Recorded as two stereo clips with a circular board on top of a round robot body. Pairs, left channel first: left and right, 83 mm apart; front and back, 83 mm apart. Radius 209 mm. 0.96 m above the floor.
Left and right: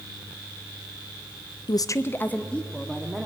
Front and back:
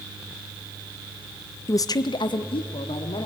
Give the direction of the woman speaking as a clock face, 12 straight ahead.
10 o'clock.